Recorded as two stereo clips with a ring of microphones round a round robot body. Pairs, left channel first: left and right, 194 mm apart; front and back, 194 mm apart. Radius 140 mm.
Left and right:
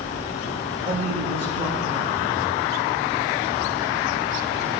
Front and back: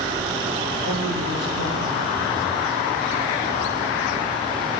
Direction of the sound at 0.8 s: 160° right.